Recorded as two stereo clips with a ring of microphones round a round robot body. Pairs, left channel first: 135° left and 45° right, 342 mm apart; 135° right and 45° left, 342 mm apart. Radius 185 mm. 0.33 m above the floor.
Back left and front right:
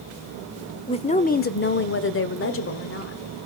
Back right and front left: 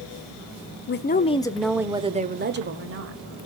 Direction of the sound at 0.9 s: 160° right.